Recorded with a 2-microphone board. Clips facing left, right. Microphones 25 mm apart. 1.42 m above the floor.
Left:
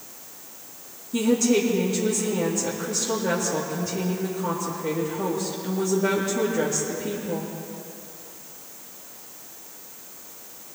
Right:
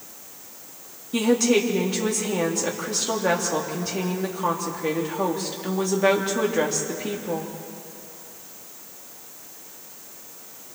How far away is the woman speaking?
About 3 m.